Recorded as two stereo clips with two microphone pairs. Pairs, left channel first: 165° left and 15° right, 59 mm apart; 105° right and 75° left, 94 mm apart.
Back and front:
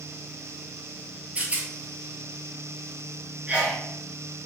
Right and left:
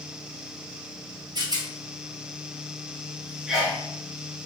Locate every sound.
1.4 s a rattle: 45° left, 1.0 m
3.5 s a sneeze: 5° right, 1.1 m